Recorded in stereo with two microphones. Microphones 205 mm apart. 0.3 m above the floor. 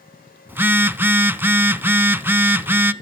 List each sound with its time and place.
0.5 s a phone buzzing: 10° right (ahead or behind), 0.6 m